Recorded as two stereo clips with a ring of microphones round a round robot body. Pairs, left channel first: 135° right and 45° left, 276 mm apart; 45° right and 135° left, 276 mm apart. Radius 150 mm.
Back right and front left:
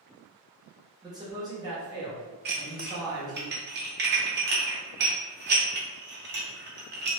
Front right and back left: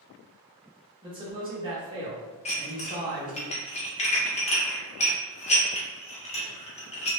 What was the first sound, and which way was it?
A man speaking, 100° left.